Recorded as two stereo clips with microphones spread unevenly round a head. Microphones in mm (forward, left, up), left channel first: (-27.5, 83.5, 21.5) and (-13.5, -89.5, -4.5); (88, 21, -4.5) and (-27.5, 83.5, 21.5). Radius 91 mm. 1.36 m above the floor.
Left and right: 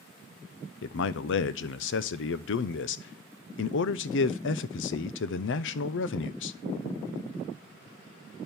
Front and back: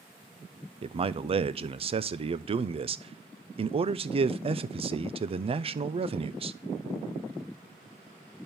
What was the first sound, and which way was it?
A man speaking, 100° left.